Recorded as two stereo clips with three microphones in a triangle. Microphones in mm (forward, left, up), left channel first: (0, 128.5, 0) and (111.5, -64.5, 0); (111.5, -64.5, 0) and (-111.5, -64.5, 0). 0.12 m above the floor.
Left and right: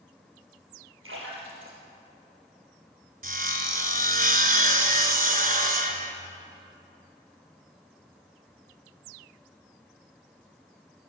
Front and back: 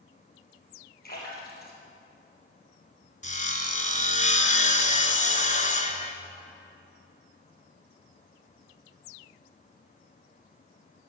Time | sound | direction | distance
1.0 | a splash | 40° right | 3.5 m
3.2 | sawing | 35° right | 1.1 m